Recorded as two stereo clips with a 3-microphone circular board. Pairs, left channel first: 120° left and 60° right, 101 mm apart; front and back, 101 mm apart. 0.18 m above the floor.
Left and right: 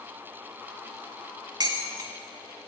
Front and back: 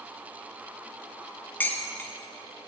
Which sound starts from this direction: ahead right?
Dishes clattering, at 1.6 s.